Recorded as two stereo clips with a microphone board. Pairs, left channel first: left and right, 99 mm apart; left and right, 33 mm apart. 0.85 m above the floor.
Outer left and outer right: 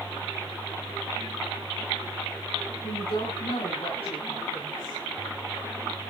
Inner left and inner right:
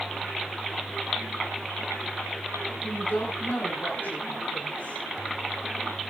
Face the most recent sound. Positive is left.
turn(degrees=60)  # may be behind; listen again after turning